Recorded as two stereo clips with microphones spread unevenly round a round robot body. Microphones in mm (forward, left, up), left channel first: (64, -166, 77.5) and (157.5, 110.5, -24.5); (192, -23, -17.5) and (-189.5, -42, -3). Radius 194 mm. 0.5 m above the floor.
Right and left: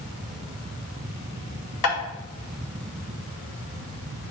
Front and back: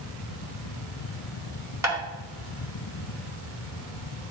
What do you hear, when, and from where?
1.8 s tapping: 95° right, 4.5 m